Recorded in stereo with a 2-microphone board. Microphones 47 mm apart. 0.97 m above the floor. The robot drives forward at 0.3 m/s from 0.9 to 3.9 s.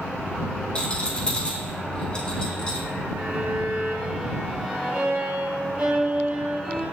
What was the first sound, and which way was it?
A rattle, 25° left (ahead or behind).